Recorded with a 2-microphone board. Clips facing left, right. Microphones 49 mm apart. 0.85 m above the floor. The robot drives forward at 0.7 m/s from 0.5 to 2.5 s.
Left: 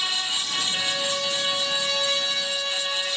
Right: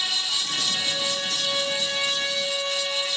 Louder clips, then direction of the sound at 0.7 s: Left 1 dB; 80° left.